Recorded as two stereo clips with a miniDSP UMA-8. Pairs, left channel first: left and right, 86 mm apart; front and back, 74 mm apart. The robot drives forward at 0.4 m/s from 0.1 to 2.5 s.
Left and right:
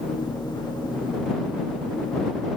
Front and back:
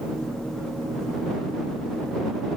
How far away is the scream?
No scream in this recording.